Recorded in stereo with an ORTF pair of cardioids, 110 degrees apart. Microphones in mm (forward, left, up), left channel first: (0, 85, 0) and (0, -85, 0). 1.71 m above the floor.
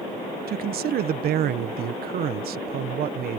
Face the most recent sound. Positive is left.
turn(degrees=-65)